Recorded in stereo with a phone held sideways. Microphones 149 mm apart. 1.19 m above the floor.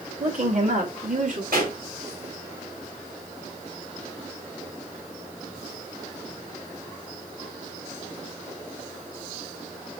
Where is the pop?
80° right, 5.5 m.